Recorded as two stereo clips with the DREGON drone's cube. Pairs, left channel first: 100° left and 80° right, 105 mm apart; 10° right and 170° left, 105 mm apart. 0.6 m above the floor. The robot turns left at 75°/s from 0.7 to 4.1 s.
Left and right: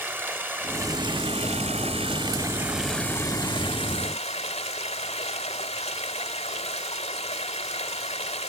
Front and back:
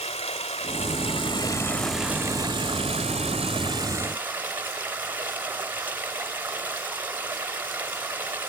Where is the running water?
10° right, 1.3 m; by 8.5 s 95° left, 1.3 m.